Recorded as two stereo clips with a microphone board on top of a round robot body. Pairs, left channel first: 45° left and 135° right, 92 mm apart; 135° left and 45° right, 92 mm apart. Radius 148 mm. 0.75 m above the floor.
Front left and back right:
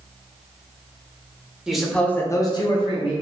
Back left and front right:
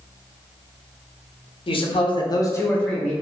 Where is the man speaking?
140° left, 0.8 m; by 3.1 s 45° left, 0.8 m.